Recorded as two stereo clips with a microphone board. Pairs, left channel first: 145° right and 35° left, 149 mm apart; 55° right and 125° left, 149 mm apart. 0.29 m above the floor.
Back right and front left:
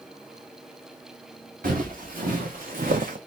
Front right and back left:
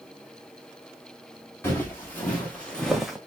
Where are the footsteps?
20° left, 1.9 m; by 3.2 s 40° left, 0.8 m.